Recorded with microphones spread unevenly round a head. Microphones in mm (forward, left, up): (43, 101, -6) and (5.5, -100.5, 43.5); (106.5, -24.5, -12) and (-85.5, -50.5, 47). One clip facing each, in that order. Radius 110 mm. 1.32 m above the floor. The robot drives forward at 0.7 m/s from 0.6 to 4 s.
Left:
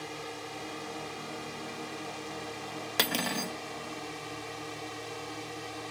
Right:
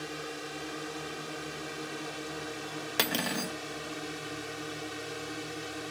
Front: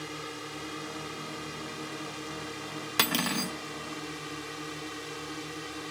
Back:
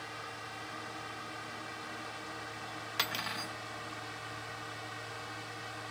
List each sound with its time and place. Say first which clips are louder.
0.0 s a drone: right 2 dB, front 8 dB; 25° right
3.0 s cutlery clinking: even, front 13 dB; 15° right; by 3.5 s 25° right